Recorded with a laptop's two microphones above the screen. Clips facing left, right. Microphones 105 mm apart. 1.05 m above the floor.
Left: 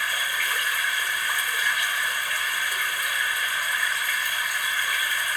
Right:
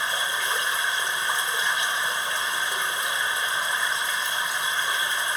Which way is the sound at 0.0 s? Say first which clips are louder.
Right 1 dB; 25° right (ahead or behind).